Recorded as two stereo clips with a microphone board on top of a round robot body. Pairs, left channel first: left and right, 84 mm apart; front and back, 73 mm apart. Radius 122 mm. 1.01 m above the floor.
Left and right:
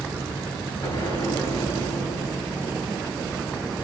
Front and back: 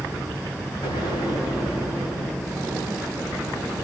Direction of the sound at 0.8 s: 35° left.